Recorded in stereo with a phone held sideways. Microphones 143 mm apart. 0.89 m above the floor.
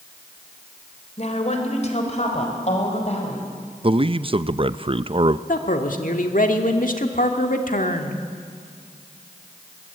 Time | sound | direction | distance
1.2 | a woman speaking | 55° left (ahead or behind) | 3.5 m
3.8 | a man speaking | 40° right (ahead or behind) | 0.6 m
5.5 | a man speaking | 75° left (ahead or behind) | 2 m